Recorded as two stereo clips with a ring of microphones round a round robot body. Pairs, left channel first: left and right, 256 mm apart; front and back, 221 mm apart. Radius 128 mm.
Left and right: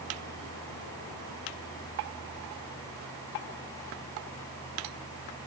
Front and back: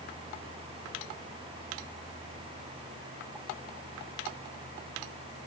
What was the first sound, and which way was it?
Only background noise.